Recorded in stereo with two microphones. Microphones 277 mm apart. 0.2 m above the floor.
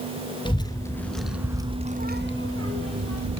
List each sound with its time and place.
0.5 s a child speaking: 15° left (ahead or behind), 2.0 m; by 3.4 s 65° right (ahead or behind), 1.8 m